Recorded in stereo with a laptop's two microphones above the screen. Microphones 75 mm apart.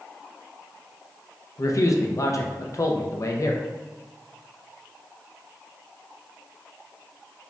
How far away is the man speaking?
About 0.5 m.